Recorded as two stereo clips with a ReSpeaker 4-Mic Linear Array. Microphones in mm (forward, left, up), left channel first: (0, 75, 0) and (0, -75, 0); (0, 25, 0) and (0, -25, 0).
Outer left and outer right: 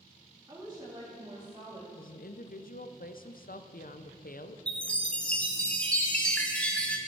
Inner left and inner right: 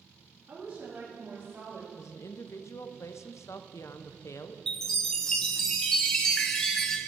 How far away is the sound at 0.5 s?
About 2.5 m.